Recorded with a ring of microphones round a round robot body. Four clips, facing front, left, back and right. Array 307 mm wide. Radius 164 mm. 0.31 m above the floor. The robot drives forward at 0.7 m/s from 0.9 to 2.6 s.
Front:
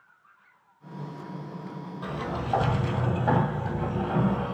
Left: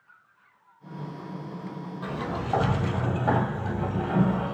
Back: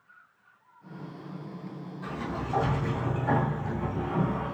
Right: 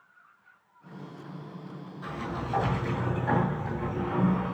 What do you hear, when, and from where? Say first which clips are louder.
2.0 s a sliding door: left 3 dB, front 2 dB; 50° left, 3 m; by 4.5 s 55° left, 3 m